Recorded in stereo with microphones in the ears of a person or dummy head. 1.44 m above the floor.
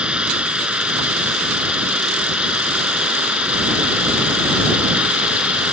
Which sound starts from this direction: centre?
Running water, at 0.0 s.